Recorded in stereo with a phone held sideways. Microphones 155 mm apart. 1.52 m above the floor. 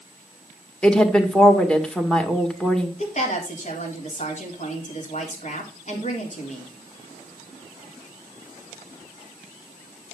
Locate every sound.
0.8 s a woman speaking: 5° left (ahead or behind), 1.9 m
3.0 s a woman speaking: 50° left (ahead or behind), 3.5 m